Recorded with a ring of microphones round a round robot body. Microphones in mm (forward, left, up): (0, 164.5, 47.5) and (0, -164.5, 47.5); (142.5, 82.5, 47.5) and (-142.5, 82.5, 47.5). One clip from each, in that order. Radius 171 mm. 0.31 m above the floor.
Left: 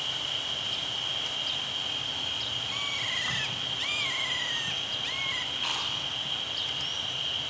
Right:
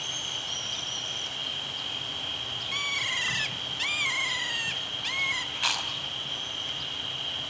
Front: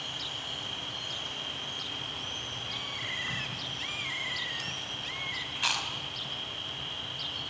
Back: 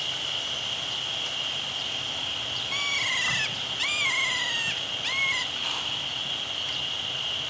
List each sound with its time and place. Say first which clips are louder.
0.0 s an insect: left 1 dB, back 7 dB; 175° left, 1.6 m
2.7 s a bird: right 6 dB, back 10 dB; 160° right, 0.6 m
5.5 s chewing: right 2 dB, back 1 dB; 50° right, 3 m